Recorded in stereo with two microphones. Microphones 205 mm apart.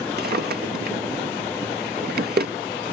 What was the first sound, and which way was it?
A drawer, 50° right (ahead or behind).